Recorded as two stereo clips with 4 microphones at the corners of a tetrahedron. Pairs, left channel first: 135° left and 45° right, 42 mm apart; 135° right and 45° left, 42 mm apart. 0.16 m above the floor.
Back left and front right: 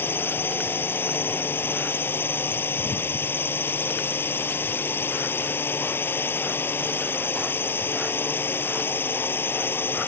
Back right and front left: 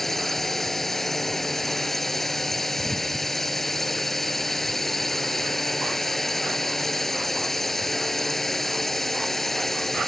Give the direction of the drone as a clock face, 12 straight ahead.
7 o'clock.